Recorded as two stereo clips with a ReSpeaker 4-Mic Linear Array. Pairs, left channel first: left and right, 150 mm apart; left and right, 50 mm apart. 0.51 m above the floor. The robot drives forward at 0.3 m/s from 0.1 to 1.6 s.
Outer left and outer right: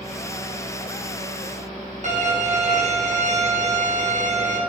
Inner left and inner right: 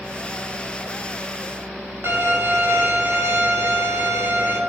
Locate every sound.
2.0 s a violin: 55° right (ahead or behind), 4 m